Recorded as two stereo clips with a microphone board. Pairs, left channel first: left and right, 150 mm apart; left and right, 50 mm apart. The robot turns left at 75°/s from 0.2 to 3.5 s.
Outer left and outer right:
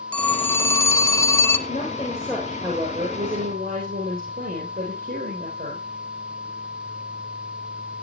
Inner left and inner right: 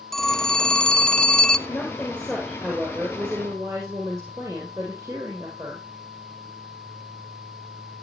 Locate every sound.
0.1 s a phone ringing: 10° left (ahead or behind), 0.6 m; by 1.6 s 15° left (ahead or behind), 0.6 m
1.7 s a woman speaking: 55° left, 4 m; by 5.8 s 85° right, 4 m